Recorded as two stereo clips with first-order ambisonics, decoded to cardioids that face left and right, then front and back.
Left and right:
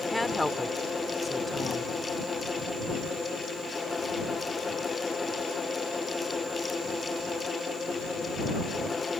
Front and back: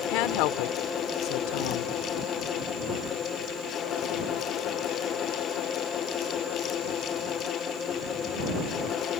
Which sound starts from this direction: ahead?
A woman speaking, at 0.1 s.